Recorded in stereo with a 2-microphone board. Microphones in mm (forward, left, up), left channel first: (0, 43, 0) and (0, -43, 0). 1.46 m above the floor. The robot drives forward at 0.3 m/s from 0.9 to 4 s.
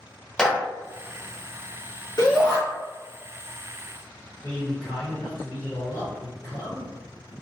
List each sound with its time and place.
0.4 s a clap: 5° left (ahead or behind), 0.8 m
2.2 s a shout: 55° left (ahead or behind), 1.5 m; by 2.6 s 50° left (ahead or behind), 1.6 m
4.4 s a man speaking: 20° left (ahead or behind), 2.0 m